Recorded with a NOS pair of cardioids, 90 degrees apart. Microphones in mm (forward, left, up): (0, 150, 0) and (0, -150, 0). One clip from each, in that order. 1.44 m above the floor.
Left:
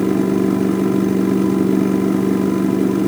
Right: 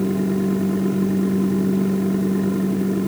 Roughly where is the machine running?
Ahead left.